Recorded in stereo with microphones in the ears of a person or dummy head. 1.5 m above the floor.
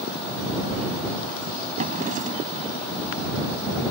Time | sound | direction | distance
1.8 | a drawer | 40° right (ahead or behind) | ?